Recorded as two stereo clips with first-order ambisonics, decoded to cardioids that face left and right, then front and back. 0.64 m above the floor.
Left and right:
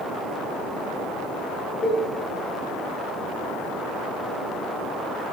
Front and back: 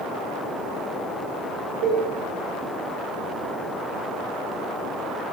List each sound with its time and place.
1.8 s a cowbell: 165° left, 3 m